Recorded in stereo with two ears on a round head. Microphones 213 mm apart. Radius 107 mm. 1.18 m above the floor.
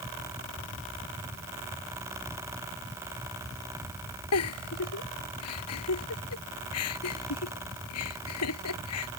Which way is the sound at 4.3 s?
70° left (ahead or behind).